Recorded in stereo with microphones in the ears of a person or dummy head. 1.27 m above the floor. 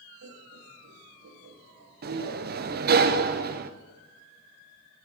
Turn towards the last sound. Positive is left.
turn(degrees=-45)  # may be behind; listen again after turning